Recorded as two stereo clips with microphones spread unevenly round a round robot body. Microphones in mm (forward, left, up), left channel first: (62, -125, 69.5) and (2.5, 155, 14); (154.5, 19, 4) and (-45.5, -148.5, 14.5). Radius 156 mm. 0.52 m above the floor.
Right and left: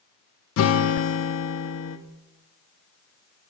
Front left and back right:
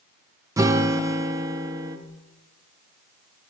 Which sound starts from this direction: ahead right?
A guitar, at 0.6 s.